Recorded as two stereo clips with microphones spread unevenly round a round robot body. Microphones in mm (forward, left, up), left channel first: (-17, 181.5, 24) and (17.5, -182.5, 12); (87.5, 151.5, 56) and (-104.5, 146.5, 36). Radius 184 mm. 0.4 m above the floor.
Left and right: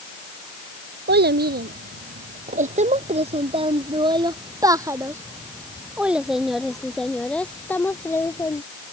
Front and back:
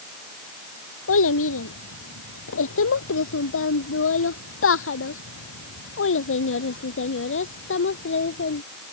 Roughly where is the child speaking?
Ahead.